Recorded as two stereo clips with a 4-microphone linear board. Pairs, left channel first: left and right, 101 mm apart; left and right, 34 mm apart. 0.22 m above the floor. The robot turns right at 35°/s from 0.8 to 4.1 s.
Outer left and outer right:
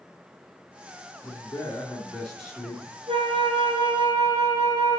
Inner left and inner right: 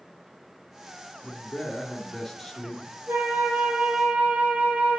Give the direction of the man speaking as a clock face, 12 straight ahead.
7 o'clock.